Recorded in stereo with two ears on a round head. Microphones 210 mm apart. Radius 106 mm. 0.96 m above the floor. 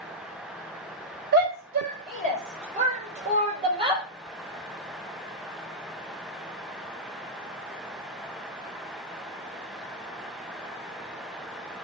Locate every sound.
1.3 s a shout: 50° right (ahead or behind), 3 m; by 4.0 s 25° right (ahead or behind), 2.5 m